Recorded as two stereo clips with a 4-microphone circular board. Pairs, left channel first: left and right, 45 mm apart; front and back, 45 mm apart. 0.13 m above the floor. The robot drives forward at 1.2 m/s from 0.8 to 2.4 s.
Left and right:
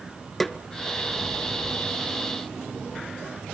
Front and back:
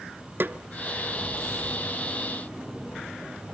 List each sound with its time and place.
0.4 s a snare drum: 175° left, 0.7 m